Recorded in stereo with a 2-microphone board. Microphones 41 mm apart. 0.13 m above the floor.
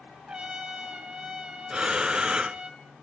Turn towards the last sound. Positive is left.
turn(degrees=-20)  # may be behind; listen again after turning